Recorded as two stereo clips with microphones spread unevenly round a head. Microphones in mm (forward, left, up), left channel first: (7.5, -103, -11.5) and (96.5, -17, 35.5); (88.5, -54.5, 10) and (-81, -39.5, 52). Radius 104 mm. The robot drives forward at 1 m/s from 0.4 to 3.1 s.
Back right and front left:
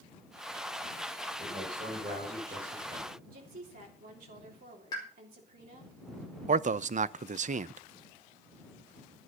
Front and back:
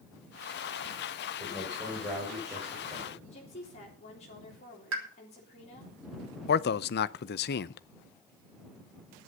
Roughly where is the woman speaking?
Ahead left.